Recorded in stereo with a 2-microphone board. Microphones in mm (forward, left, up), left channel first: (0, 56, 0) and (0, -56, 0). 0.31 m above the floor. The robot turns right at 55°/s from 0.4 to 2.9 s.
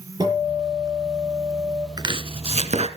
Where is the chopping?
140° right, 1.5 m; by 2.9 s 90° right, 1.5 m.